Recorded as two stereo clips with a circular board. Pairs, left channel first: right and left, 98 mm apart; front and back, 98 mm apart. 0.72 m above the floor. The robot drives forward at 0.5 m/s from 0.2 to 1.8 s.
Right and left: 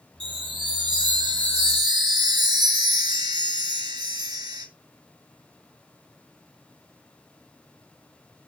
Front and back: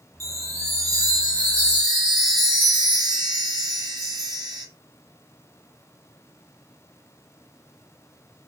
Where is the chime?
120° left, 2.5 m; by 4.7 s 135° left, 3 m.